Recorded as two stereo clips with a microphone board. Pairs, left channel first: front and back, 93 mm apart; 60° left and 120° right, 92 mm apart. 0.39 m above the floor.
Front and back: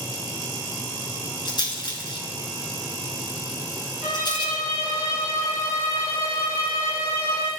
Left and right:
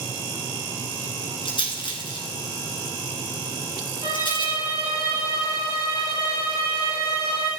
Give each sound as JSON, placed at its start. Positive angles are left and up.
{"t": 1.4, "sound": "a rattle", "azimuth_deg": 35, "distance_m": 1.9}
{"t": 4.0, "sound": "a violin", "azimuth_deg": -115, "distance_m": 6.0}